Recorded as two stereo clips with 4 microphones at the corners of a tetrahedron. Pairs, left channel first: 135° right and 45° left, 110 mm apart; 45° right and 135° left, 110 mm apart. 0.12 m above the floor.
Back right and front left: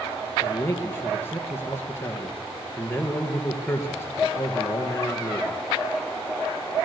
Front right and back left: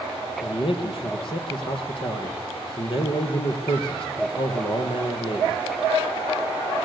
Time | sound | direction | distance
0.4 | a man speaking | 70° right | 2.5 m